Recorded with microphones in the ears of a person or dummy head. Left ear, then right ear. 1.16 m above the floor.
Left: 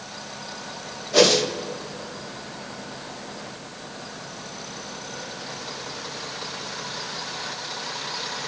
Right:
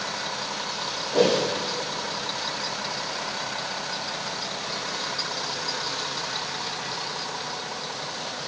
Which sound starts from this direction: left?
A whoosh, at 1.1 s.